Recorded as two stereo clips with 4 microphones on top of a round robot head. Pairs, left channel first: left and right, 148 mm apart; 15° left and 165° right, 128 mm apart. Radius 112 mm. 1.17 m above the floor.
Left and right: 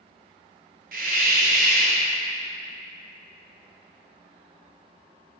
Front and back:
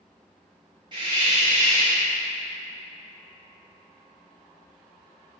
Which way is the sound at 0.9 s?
105° right.